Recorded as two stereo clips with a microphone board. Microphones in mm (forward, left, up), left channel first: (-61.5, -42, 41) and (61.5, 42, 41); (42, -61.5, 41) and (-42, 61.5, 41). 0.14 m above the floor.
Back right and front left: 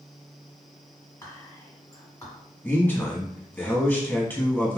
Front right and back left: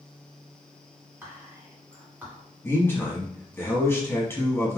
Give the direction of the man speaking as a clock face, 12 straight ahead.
3 o'clock.